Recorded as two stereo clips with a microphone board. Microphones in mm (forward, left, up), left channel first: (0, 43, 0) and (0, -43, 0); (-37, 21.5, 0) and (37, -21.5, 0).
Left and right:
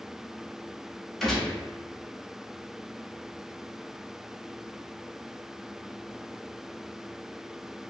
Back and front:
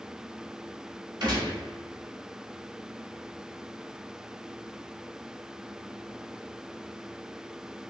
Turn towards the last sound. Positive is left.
turn(degrees=5)